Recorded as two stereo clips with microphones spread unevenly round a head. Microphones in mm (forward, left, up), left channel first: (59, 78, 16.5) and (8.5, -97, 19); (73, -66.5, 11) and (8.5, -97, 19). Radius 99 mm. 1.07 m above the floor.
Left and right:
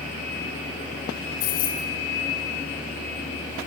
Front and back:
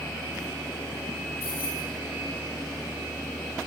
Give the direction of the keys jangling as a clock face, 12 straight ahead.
8 o'clock.